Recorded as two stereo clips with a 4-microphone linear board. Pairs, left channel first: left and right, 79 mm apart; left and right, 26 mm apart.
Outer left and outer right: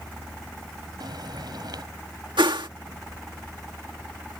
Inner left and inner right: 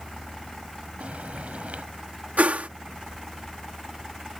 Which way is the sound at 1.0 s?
60° right (ahead or behind).